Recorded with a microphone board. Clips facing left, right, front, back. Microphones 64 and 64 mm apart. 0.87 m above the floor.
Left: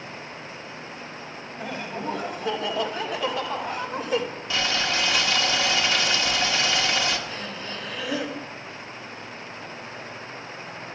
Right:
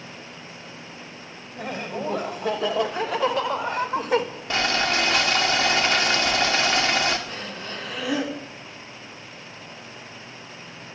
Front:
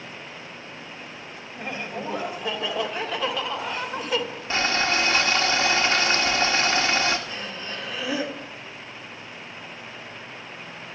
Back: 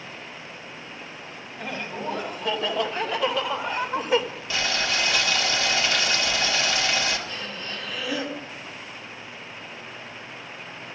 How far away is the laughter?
About 4.5 m.